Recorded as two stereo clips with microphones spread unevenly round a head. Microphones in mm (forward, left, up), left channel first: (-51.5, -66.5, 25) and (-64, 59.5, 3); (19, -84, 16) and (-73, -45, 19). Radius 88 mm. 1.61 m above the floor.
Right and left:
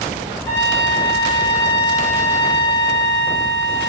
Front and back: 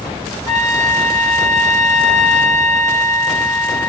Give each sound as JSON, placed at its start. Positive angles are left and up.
{"t": 0.5, "sound": "a trumpet", "azimuth_deg": -155, "distance_m": 6.0}